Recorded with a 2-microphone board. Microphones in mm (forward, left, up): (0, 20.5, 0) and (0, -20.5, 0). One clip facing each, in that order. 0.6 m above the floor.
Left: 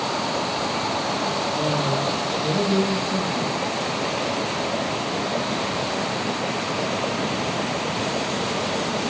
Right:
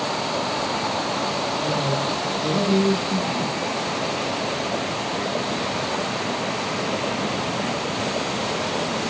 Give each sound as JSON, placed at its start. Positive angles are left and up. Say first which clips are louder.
{"t": 1.5, "sound": "a man speaking", "louder": "left 1 dB", "side_deg": 15, "distance_m": 0.7}